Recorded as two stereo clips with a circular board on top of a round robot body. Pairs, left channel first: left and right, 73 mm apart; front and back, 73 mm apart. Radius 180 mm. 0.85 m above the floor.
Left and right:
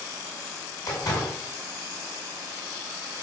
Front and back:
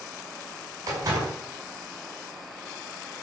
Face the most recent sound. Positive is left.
turn(degrees=135)